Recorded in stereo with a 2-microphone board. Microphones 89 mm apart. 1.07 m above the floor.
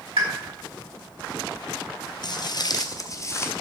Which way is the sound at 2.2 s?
55° left (ahead or behind).